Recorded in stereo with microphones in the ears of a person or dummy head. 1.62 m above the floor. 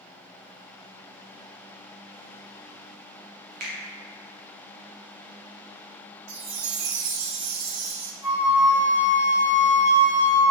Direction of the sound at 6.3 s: 85° right.